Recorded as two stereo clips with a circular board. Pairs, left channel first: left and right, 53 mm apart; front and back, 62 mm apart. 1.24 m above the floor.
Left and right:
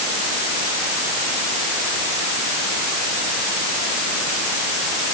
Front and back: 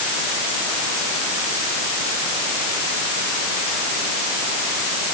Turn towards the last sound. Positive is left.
No sound to turn to.